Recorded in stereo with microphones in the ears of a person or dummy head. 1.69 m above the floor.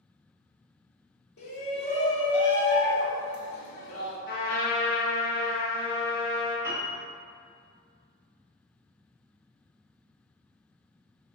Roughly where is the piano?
Right.